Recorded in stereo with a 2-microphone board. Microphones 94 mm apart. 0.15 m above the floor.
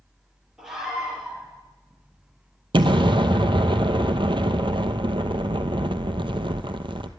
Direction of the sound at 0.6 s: 5° right (ahead or behind).